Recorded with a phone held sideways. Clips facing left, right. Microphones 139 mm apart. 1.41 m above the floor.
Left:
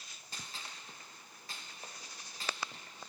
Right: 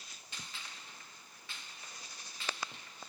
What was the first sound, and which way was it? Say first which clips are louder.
A gunshot: left 2 dB; 40° left (ahead or behind).